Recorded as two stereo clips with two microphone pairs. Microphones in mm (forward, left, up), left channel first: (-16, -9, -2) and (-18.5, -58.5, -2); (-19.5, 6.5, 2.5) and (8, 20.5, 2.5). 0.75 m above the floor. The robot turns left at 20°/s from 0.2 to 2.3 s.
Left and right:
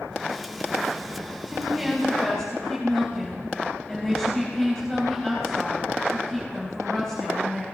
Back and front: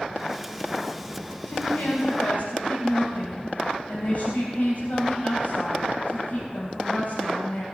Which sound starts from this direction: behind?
A woman speaking, at 1.5 s.